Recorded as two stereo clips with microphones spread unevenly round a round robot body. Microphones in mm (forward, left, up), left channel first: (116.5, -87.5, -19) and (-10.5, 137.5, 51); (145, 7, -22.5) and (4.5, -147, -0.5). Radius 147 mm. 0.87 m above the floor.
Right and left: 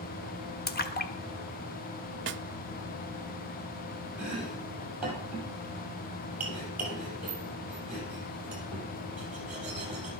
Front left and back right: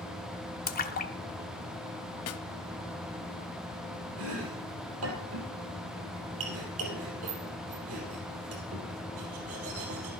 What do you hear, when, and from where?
0.7 s a splash: straight ahead, 1.5 m
2.3 s a snare drum: 65° left, 0.6 m
4.2 s chopping: 160° right, 4 m